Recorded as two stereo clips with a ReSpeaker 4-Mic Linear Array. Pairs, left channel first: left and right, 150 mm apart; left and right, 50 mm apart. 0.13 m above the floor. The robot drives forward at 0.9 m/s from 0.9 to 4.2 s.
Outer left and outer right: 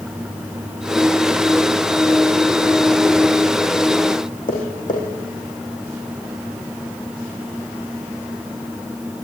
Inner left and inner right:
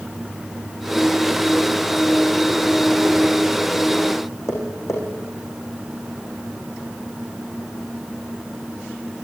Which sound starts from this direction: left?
Tapping, at 4.5 s.